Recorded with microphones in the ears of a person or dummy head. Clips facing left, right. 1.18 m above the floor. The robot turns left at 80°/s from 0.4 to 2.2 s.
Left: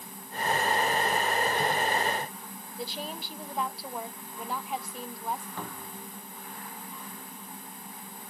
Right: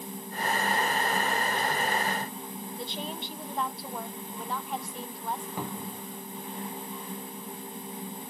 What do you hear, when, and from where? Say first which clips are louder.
2.8 s a woman speaking: left 2 dB; 10° left (ahead or behind), 0.6 m
5.6 s a cupboard door: right 4 dB; 20° right (ahead or behind), 0.7 m